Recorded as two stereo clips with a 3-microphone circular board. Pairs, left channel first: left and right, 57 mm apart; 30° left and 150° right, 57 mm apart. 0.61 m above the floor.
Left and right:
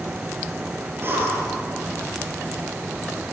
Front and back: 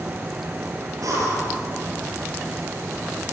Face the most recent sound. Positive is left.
turn(degrees=-140)